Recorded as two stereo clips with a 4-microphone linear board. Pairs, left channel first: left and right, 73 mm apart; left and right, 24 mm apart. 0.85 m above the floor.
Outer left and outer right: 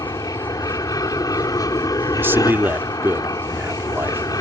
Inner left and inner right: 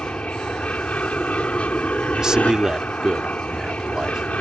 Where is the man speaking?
30° right (ahead or behind).